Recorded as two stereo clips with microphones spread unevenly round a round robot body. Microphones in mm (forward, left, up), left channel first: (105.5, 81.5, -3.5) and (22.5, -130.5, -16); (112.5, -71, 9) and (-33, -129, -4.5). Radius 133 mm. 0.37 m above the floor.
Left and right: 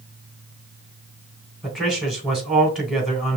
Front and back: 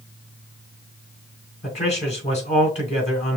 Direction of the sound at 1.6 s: 25° right.